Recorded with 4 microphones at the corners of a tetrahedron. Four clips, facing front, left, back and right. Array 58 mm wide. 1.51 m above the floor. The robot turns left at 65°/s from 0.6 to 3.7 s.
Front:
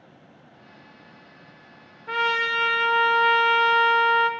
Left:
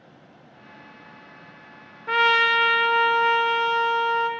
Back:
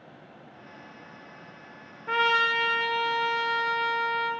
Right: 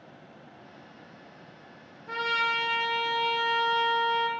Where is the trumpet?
105° left, 0.6 m; by 4.3 s straight ahead, 0.6 m.